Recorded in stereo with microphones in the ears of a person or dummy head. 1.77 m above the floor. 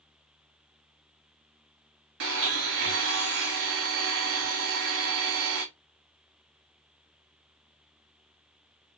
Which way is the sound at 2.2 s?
65° right (ahead or behind).